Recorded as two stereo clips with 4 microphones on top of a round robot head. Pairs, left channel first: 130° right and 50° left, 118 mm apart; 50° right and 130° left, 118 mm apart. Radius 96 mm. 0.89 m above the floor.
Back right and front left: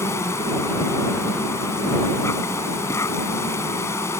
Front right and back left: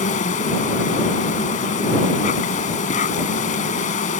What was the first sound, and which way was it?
An insect, 65° right.